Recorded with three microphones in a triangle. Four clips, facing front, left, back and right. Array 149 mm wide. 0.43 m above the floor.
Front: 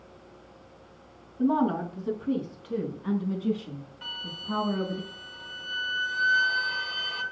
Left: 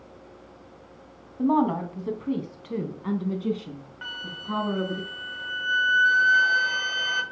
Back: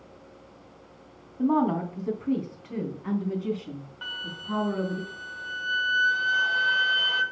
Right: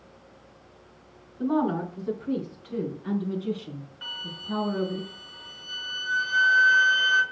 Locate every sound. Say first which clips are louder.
1.4 s a woman speaking: left 3 dB, back 1 dB; 110° left, 3 m; by 5.0 s 95° left, 4.5 m
4.0 s a flute: left 6 dB, back 2 dB; 130° left, 1.7 m